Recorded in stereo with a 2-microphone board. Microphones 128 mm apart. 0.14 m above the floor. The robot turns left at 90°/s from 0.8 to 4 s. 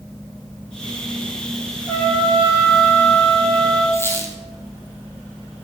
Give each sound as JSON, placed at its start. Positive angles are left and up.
{"t": 1.9, "sound": "a trumpet", "azimuth_deg": -145, "distance_m": 6.0}
{"t": 3.9, "sound": "a squeak", "side_deg": 25, "distance_m": 3.0}